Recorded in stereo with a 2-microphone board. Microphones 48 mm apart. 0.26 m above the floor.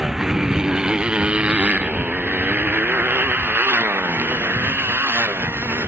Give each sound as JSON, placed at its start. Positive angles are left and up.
{"t": 0.0, "sound": "a motorcycle", "side_deg": -5}